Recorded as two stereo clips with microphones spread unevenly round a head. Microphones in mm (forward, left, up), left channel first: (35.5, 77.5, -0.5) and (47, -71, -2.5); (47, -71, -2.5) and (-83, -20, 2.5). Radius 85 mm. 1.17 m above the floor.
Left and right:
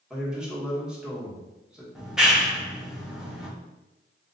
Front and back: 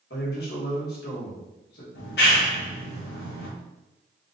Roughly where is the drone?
No drone in this recording.